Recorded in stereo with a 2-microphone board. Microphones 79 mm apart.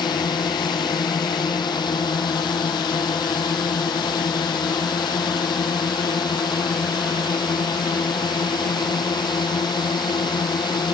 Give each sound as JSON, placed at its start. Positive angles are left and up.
{"t": 0.0, "sound": "a drone", "side_deg": 70}